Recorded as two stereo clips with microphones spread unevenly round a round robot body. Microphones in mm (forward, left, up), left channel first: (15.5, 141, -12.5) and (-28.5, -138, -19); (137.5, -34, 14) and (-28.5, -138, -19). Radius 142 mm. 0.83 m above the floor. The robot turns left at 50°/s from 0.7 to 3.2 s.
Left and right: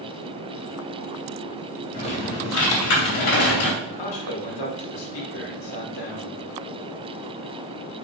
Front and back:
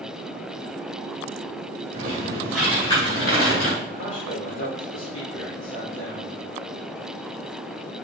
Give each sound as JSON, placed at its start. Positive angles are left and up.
{"t": 1.9, "sound": "typing on a keyboard", "azimuth_deg": 155, "distance_m": 3.0}
{"t": 3.8, "sound": "a man speaking", "azimuth_deg": 80, "distance_m": 2.5}